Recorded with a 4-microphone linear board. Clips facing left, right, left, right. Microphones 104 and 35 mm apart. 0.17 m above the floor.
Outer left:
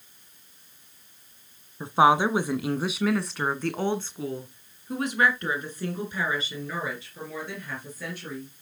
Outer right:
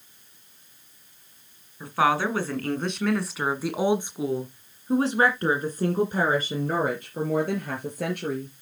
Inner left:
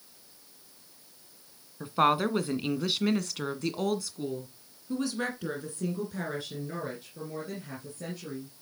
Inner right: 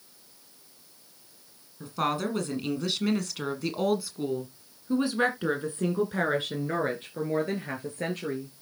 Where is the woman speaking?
25° left (ahead or behind), 1.8 m; by 8.5 s 60° right (ahead or behind), 3.5 m.